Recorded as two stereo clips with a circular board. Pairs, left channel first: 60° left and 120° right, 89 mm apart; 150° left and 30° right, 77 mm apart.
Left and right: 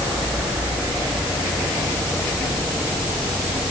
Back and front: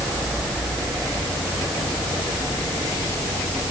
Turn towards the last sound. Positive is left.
No sound to turn to.